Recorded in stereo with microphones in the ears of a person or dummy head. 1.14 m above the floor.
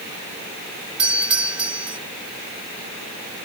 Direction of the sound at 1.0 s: 5° right (ahead or behind).